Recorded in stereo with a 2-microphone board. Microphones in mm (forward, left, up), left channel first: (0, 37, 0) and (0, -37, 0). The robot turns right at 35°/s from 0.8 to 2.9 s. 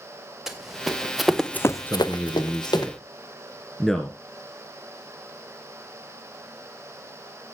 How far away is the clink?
I don't hear a clink.